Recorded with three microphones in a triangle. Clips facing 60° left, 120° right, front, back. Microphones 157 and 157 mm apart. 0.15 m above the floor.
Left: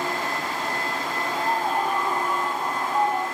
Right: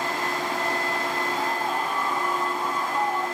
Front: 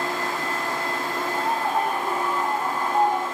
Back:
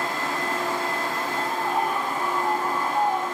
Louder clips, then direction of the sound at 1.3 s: Left 2 dB, front 2 dB; 20° left.